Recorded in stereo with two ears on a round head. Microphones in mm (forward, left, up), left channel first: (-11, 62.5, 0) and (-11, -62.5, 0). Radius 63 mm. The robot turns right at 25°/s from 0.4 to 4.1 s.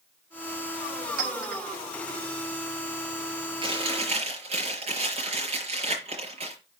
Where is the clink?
75° right (ahead or behind), 4 m; by 1.6 s 70° right (ahead or behind), 4 m.